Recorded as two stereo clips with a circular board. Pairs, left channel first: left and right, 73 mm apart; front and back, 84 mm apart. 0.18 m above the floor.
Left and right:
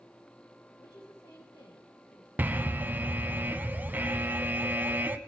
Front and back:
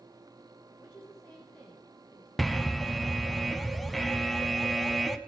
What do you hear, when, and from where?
0.8 s a woman speaking: 70° left, 5.5 m
2.4 s an alarm: 90° right, 0.7 m